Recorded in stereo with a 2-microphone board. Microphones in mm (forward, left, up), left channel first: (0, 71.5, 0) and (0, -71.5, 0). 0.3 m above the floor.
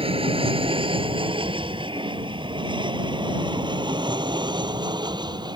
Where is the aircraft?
40° right (ahead or behind); by 5.6 s 30° right (ahead or behind).